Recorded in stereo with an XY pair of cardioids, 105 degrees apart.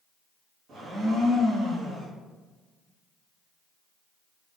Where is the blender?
60° right, 2.0 m.